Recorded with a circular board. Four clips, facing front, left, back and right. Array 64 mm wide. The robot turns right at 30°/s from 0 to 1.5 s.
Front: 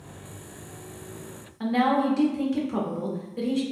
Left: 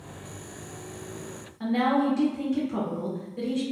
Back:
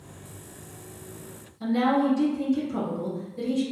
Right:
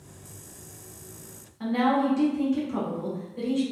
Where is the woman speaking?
5° left, 1.3 m.